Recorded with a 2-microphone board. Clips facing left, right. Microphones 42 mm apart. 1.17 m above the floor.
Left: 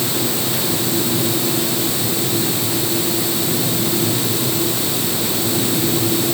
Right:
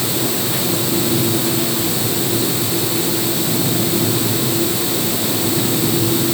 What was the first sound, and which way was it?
Only background noise.